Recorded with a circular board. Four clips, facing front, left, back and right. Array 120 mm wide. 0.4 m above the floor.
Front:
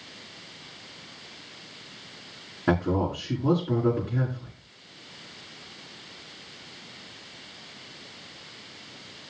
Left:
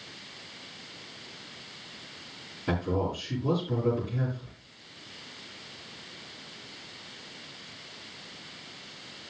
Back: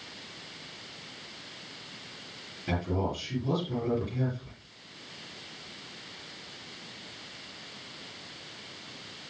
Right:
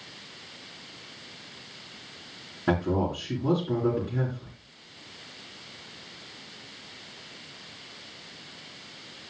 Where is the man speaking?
35° right, 7 m.